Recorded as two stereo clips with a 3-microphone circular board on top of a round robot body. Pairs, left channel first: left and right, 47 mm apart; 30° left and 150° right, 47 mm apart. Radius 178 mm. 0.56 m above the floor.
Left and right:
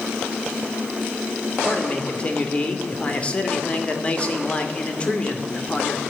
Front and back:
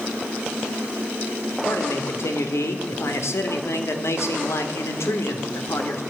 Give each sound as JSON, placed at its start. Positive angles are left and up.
{"t": 1.6, "sound": "a man speaking", "azimuth_deg": 25, "distance_m": 2.5}